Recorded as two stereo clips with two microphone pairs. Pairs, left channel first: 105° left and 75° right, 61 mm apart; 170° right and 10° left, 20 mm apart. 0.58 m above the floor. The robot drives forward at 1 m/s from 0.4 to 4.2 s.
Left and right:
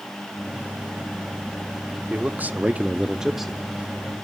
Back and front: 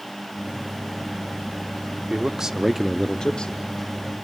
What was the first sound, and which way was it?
A man speaking, 15° right.